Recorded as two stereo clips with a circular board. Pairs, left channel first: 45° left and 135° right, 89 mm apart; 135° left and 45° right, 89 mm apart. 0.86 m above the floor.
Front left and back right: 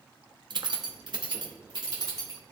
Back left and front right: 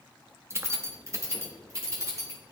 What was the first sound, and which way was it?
Keys jangling, 105° right.